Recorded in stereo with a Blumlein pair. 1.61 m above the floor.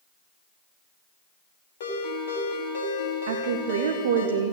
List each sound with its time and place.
1.8 s a ringtone: 60° left, 3.5 m
3.3 s a woman speaking: 60° right, 0.9 m